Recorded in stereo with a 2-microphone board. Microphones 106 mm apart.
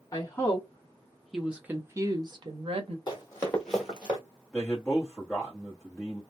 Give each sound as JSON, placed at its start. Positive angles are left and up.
{"t": 0.1, "sound": "a woman speaking", "side_deg": 30, "distance_m": 1.1}
{"t": 3.1, "sound": "running footsteps", "side_deg": 35, "distance_m": 1.5}
{"t": 4.5, "sound": "a man speaking", "side_deg": 5, "distance_m": 1.0}